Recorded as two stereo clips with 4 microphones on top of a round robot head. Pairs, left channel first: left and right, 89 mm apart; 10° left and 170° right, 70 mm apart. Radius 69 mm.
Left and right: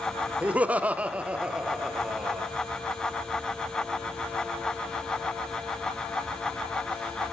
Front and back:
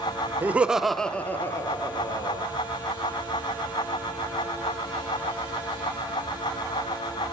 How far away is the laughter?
About 0.8 m.